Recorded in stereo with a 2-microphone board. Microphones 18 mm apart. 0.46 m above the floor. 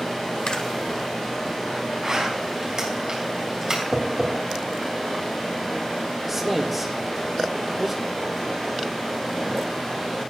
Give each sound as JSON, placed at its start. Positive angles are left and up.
{"t": 0.5, "sound": "a camera shutter", "side_deg": 45, "distance_m": 0.8}
{"t": 2.0, "sound": "a zipper", "side_deg": -40, "distance_m": 3.5}
{"t": 3.9, "sound": "tapping", "side_deg": -40, "distance_m": 3.0}
{"t": 6.3, "sound": "a man speaking", "side_deg": -15, "distance_m": 0.8}